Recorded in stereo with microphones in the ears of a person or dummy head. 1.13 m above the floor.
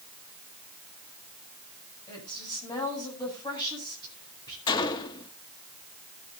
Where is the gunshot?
25° left (ahead or behind), 0.9 m.